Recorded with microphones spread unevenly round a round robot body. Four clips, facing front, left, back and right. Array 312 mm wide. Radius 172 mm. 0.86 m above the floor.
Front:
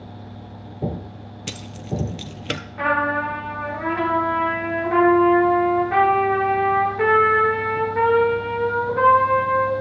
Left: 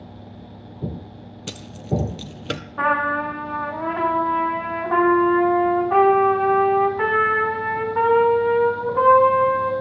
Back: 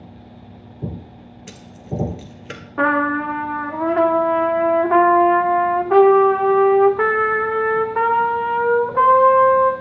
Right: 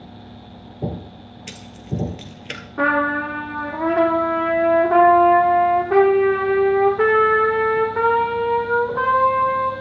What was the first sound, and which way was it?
Keys jangling, 30° left.